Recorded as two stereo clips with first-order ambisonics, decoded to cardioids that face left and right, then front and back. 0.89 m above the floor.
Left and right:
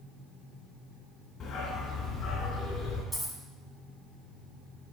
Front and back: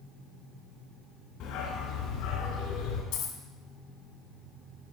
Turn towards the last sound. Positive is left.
turn(degrees=-5)